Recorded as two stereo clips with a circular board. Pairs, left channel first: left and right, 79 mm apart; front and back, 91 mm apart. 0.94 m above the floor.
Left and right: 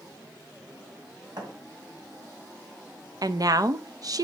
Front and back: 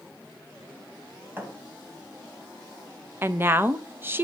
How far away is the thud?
About 2.5 m.